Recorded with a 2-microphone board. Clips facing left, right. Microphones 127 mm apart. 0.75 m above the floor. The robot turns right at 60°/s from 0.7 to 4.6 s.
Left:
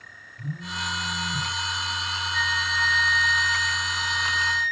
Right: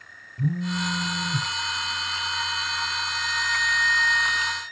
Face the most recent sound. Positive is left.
turn(degrees=-160)